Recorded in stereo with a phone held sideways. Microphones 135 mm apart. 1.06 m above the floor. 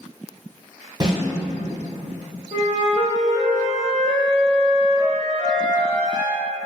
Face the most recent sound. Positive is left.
turn(degrees=65)  # may be behind; listen again after turning